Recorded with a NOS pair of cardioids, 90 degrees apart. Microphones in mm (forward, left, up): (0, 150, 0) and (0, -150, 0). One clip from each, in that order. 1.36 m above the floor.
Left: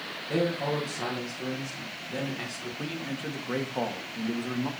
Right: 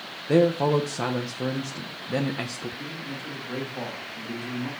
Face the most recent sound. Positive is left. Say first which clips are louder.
# left 1 dB
turn(degrees=40)